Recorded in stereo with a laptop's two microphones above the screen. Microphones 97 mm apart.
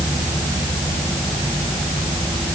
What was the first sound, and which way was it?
Only background noise.